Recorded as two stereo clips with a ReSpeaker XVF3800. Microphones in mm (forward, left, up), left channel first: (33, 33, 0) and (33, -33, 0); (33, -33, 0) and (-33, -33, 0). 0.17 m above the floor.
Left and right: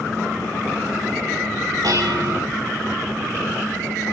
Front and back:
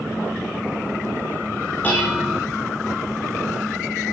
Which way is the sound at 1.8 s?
70° right.